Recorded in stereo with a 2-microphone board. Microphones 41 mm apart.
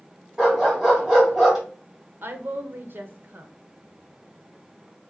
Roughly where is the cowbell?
No cowbell in this recording.